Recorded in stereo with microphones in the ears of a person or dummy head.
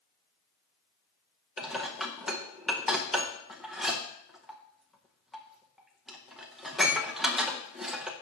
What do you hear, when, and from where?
1.6 s dishes clattering: centre (ahead or behind), 0.8 m